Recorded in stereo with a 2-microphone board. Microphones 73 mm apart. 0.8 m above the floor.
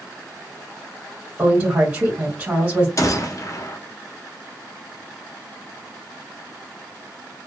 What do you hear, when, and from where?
1.4 s a woman speaking: 25° right (ahead or behind), 1.5 m
3.0 s a gunshot: 45° left (ahead or behind), 0.5 m